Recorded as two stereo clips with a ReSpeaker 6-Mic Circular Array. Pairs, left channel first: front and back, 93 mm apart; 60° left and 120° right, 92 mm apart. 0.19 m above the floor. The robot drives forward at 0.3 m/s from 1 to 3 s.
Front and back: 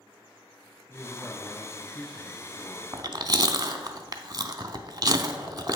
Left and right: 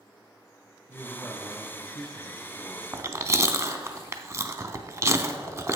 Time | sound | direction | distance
0.9 | a man speaking | 50° left | 1.7 m
2.9 | chewing | 165° right | 0.5 m